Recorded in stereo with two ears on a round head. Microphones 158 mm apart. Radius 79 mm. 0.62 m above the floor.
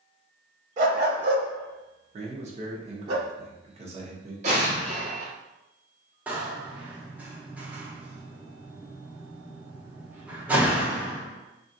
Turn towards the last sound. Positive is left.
turn(degrees=-10)  # may be behind; listen again after turning